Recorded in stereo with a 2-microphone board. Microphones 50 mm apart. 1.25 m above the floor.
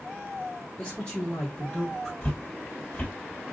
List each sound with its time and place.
0.8 s a man speaking: 20° left (ahead or behind), 1.4 m; by 2.1 s centre (ahead or behind), 0.8 m
2.2 s footsteps: 20° left (ahead or behind), 1.8 m